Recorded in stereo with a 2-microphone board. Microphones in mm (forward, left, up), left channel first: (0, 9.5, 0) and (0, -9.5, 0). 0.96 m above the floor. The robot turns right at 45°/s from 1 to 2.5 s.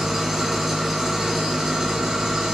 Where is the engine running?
145° right, 0.7 m; by 2.5 s 80° right, 0.7 m.